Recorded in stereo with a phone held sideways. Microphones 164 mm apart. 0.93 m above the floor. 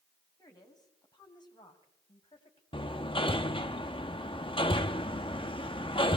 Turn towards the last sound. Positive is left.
turn(degrees=30)  # may be behind; listen again after turning